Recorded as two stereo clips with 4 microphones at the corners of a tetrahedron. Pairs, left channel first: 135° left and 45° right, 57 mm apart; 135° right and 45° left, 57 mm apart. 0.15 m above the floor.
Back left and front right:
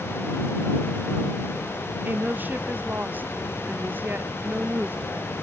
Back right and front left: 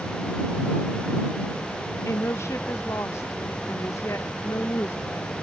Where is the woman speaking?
100° right.